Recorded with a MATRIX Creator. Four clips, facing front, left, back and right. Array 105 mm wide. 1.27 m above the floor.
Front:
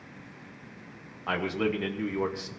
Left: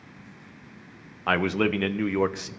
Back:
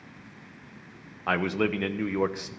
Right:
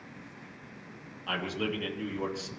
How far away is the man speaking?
About 1.0 m.